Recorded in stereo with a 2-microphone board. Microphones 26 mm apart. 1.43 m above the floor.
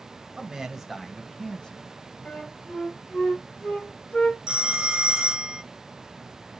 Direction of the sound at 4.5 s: 35° right (ahead or behind).